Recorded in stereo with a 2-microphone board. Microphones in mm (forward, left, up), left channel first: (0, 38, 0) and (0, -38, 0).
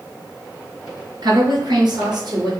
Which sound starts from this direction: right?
A woman speaking, at 1.2 s.